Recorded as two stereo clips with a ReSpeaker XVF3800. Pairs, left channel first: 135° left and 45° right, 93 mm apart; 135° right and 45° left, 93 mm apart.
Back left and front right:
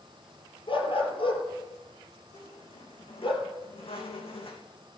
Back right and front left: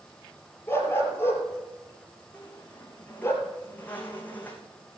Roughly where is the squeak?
Behind left.